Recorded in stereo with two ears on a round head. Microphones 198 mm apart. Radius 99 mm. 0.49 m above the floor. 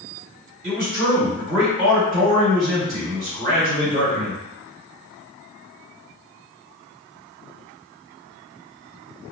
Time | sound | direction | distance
0.6 | a man speaking | 40° right (ahead or behind) | 1.7 m